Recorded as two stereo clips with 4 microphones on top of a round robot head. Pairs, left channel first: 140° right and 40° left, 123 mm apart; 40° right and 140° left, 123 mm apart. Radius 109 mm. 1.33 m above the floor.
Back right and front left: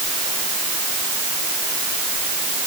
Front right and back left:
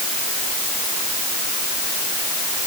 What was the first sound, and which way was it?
Only background noise.